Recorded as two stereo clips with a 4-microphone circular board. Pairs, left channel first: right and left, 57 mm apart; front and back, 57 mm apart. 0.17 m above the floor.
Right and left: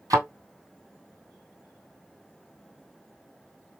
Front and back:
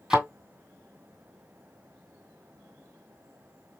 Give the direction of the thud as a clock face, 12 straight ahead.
9 o'clock.